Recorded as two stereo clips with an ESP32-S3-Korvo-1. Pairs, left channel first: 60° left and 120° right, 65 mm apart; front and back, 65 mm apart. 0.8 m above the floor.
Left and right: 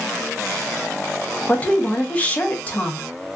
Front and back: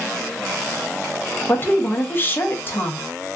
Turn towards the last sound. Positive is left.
turn(degrees=15)